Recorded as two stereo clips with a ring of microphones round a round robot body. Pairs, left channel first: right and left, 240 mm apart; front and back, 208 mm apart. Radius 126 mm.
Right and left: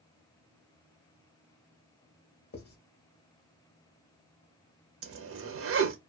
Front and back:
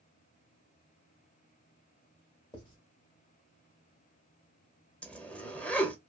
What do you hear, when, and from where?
2.5 s writing: 60° right, 1.0 m
5.0 s a zipper: 85° left, 0.7 m